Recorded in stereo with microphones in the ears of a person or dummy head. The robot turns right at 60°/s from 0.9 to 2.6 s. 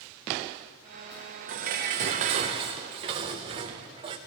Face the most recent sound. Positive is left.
turn(degrees=-50)